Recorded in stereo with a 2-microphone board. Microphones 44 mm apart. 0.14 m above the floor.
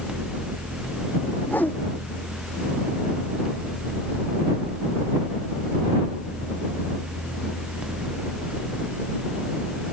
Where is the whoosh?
50° left (ahead or behind).